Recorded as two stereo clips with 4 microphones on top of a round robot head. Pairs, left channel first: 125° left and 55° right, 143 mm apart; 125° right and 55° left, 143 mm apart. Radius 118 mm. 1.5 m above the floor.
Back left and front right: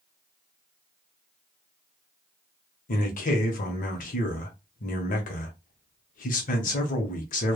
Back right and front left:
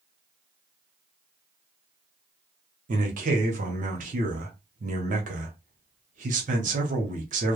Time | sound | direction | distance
2.9 | a man speaking | 90° left | 0.7 m